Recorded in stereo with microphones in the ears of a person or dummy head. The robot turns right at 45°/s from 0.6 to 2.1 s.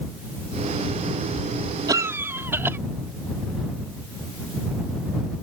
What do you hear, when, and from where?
1.9 s a cough: 15° right (ahead or behind); by 2.8 s 5° right (ahead or behind)